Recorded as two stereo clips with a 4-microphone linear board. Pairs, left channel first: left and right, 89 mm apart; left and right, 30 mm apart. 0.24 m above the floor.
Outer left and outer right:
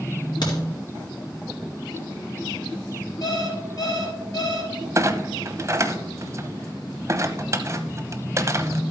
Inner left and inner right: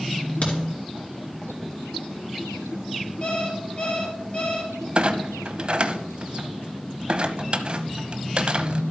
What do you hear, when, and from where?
0.4 s a crack: 55° left (ahead or behind), 4 m
3.2 s an alarm clock: 45° left (ahead or behind), 2.5 m
5.0 s a clunk: 35° right (ahead or behind), 0.8 m